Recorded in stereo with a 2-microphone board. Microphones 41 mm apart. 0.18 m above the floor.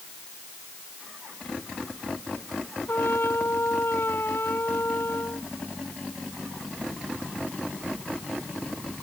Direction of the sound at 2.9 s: 75° left (ahead or behind).